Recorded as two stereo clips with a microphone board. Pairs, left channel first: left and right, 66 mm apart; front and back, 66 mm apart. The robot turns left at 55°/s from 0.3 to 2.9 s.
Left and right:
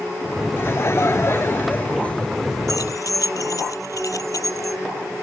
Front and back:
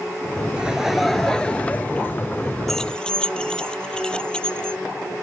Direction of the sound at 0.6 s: 115° left.